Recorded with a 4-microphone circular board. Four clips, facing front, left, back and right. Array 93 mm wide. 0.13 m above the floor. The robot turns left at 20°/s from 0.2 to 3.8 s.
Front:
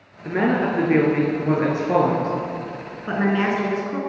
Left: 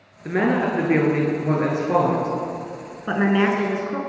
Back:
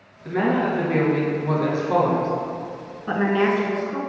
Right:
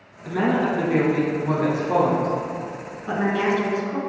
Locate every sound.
0.2 s a woman speaking: 65° left, 1.5 m; by 2.3 s 25° left, 1.5 m
3.1 s a woman speaking: 85° left, 1.2 m; by 4.0 s 70° left, 1.2 m